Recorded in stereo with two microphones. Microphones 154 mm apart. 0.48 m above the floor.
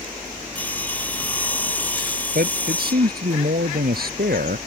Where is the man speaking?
85° right.